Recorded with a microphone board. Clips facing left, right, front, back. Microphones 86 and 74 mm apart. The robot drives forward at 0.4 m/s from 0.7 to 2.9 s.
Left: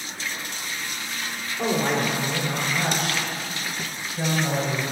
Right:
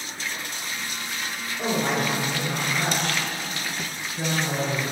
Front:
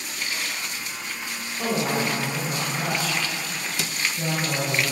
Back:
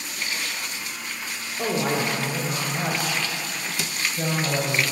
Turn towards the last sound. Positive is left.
turn(degrees=170)